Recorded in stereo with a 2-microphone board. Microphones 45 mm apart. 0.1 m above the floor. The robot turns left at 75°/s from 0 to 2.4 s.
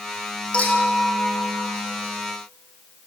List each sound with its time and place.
0.5 s a clink: 155° left, 2.5 m; by 1.7 s 70° left, 2.5 m